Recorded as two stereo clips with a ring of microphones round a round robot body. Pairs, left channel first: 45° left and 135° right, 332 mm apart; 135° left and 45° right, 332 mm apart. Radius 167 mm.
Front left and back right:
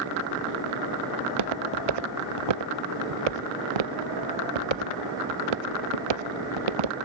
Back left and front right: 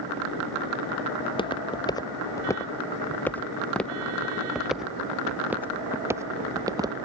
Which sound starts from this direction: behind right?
Footsteps, at 1.2 s.